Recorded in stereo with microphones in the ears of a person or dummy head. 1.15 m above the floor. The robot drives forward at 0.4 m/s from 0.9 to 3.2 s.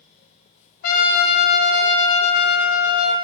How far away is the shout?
I don't hear a shout.